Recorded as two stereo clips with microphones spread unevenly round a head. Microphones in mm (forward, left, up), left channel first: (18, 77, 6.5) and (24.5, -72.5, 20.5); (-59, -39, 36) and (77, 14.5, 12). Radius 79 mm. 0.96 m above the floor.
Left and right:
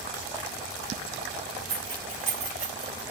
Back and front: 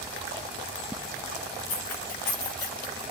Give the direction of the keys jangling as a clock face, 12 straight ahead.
5 o'clock.